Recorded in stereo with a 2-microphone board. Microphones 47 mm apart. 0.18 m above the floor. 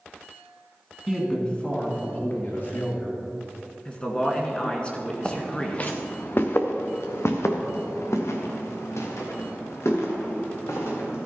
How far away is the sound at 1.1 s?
About 2 m.